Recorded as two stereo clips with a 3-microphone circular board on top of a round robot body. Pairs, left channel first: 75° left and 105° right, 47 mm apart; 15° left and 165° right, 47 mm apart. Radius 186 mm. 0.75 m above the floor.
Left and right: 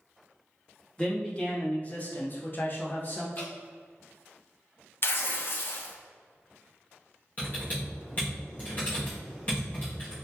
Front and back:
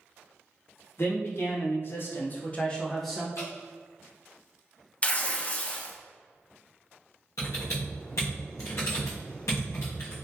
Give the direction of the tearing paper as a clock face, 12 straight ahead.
10 o'clock.